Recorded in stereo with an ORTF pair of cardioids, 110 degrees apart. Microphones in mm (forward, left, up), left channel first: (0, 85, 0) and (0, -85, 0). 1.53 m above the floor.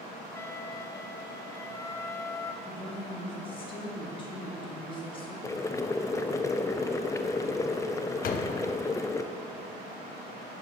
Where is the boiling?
20° left, 0.5 m.